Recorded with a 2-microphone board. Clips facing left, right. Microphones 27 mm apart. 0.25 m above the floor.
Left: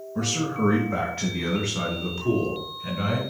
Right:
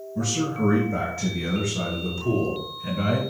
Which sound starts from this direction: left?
A man speaking, at 0.1 s.